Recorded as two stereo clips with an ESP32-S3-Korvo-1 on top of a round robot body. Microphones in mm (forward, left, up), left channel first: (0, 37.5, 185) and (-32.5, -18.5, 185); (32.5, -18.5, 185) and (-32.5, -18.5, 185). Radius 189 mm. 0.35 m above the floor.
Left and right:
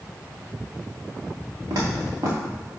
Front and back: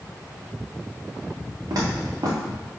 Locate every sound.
1.7 s footsteps: 150° right, 2 m